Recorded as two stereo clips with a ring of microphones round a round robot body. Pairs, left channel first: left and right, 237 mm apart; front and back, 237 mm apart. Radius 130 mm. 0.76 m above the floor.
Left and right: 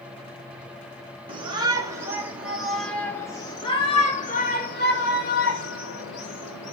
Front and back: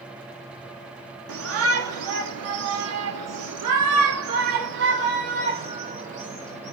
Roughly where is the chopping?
No chopping in this recording.